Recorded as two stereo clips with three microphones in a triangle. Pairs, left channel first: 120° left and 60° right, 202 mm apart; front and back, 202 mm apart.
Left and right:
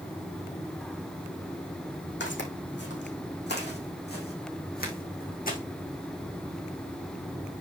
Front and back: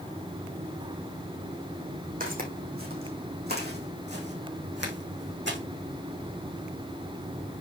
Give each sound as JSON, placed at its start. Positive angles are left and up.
{"t": 2.2, "sound": "footsteps", "azimuth_deg": 140, "distance_m": 4.0}